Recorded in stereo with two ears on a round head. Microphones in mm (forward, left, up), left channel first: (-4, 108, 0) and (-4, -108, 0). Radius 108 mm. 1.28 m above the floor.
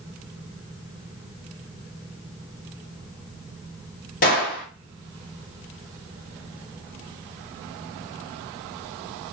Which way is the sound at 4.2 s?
40° left (ahead or behind).